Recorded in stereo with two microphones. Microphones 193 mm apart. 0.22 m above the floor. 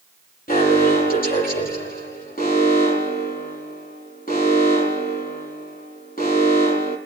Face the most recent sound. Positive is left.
turn(degrees=50)  # may be behind; listen again after turning